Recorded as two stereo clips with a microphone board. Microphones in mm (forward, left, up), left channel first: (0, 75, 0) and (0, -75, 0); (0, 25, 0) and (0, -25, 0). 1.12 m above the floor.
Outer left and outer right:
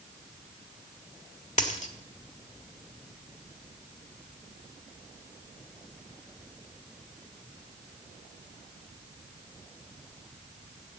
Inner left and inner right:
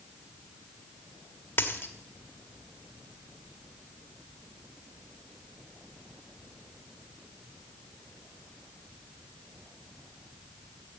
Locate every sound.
1.6 s a dropped coin: 55° left (ahead or behind), 1.5 m